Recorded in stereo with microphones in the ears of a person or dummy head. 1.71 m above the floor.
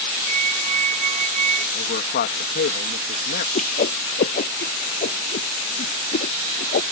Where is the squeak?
45° right (ahead or behind).